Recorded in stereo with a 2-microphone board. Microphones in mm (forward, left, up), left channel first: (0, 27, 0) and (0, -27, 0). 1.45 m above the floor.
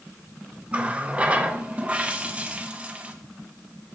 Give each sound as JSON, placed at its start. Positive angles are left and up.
{"t": 0.7, "sound": "a running tap", "side_deg": -20, "distance_m": 0.6}